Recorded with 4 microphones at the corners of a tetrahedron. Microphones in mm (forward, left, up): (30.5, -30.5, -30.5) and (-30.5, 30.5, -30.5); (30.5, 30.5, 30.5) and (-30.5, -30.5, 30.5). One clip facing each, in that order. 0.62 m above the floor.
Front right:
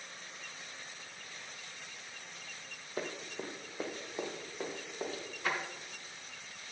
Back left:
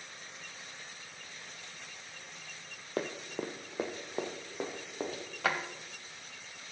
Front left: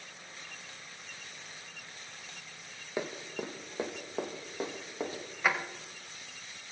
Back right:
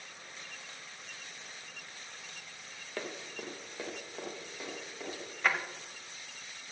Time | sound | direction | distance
3.0 | running footsteps | 120° left | 1.3 m
5.4 | a drawer | 130° left | 1.4 m